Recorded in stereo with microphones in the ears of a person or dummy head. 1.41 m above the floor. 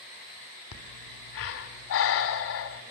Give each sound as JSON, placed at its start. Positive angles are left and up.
{"t": 0.7, "sound": "breathing", "side_deg": 70, "distance_m": 2.0}